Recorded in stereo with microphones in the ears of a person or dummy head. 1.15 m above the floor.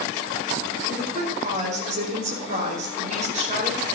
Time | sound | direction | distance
0.9 | a woman speaking | 45° right (ahead or behind) | 5 m